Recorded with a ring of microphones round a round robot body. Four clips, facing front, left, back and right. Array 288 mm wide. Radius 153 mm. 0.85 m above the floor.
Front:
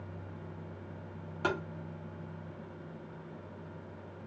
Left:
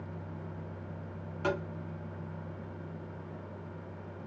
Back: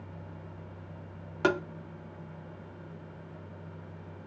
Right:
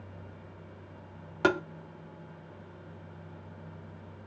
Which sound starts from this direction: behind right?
Tapping, at 1.4 s.